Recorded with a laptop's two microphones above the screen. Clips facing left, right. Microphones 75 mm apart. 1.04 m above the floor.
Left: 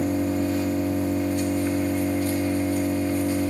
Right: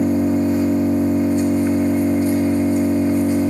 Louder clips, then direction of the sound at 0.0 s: Right 7 dB; 20° right (ahead or behind).